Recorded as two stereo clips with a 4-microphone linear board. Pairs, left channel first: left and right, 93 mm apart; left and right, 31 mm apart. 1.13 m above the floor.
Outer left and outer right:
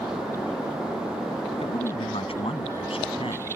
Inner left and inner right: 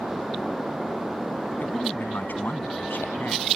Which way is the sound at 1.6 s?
80° left.